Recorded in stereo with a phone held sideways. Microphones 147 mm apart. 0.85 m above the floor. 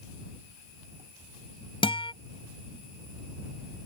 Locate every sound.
1.8 s a guitar: 35° left (ahead or behind)